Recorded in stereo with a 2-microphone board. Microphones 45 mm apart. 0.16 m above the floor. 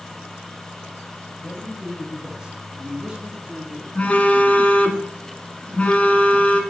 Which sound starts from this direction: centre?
A man speaking, at 1.4 s.